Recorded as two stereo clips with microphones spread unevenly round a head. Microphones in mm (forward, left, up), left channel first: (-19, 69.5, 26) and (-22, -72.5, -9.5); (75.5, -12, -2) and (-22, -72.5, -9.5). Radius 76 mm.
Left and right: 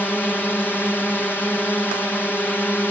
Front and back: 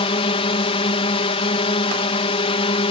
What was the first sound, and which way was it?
A drone, 5° left.